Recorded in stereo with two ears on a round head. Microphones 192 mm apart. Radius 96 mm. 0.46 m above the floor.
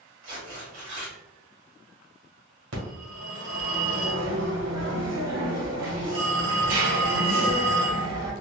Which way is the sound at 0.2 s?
65° right (ahead or behind).